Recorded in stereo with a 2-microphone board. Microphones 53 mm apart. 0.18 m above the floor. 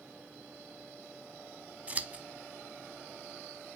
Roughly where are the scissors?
Right.